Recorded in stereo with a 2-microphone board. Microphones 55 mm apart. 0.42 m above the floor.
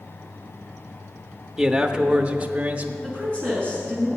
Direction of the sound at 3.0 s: 20° left (ahead or behind).